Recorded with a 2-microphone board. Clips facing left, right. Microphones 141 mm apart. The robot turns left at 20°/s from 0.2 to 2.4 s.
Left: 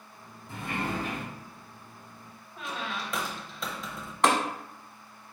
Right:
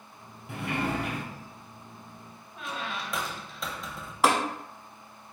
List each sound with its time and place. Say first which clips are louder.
0.5 s a sliding door: right 3 dB; 80° right, 1.3 m
2.6 s a squeak: even; centre (ahead or behind), 0.7 m
4.2 s tapping: even; 5° right (ahead or behind), 0.9 m